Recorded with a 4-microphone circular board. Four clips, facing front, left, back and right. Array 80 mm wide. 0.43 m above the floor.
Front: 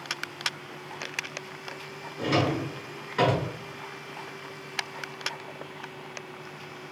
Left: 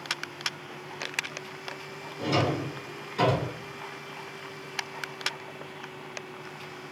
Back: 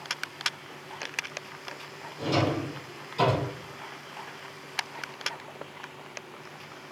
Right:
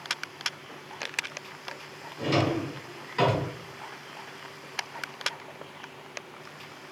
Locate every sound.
2.2 s a drawer: 15° right, 1.9 m